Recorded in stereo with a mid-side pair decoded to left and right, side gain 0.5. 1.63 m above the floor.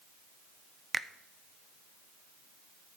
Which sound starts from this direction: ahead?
A finger snap, at 0.9 s.